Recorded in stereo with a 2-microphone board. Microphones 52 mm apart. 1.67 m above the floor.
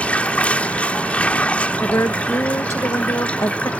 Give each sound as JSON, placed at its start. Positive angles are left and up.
{"t": 0.0, "sound": "running water", "side_deg": 25}
{"t": 1.8, "sound": "a woman speaking", "side_deg": 75}